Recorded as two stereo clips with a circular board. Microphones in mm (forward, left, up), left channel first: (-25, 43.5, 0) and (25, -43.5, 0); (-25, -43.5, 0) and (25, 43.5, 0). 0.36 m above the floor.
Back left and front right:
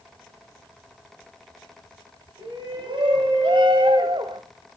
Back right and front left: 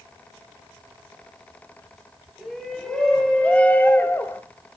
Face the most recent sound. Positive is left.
turn(degrees=-65)